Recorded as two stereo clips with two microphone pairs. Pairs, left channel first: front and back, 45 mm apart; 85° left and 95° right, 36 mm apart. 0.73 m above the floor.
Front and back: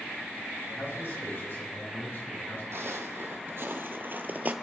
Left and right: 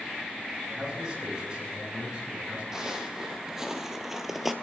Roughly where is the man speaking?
Ahead right.